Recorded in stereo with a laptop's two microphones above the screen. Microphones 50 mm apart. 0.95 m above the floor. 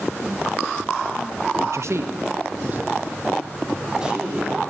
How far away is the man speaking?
About 0.5 m.